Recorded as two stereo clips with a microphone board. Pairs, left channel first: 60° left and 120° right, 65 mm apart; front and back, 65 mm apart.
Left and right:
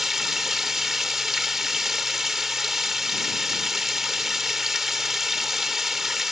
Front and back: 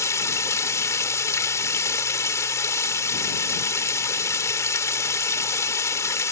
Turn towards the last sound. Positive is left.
turn(degrees=-35)